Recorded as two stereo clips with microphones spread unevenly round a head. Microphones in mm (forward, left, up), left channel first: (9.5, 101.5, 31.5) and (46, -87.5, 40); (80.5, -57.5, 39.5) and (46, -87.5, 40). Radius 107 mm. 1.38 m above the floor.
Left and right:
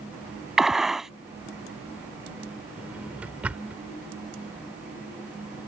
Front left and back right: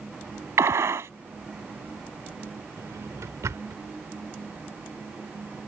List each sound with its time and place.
0.6 s a gunshot: 165° right
2.8 s a drawer: 160° right